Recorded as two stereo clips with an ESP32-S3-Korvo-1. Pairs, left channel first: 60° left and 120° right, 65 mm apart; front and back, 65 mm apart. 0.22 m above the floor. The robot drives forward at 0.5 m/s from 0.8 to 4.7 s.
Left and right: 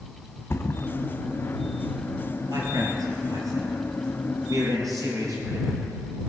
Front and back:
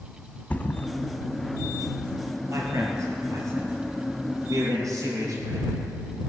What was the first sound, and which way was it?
A thud, 50° left.